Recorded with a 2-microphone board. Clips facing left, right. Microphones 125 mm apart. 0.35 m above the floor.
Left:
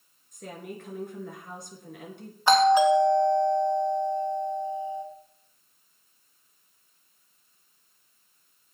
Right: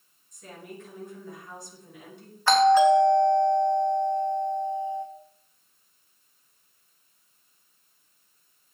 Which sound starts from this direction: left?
A woman speaking, at 0.3 s.